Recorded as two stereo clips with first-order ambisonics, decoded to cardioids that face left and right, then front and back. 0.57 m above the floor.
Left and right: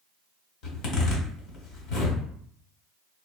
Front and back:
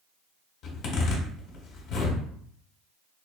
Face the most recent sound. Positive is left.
turn(degrees=50)